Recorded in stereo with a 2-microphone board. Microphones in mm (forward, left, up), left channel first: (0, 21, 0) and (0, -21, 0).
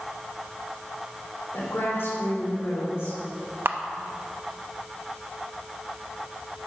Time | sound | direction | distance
1.5 | a woman speaking | 80° left | 3 m
3.6 | a camera shutter | 60° right (ahead or behind) | 0.6 m